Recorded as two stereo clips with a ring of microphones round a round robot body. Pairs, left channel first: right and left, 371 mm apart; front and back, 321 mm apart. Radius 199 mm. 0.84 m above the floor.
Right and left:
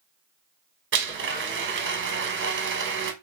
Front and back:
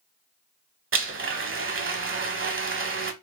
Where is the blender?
140° left, 1.2 m.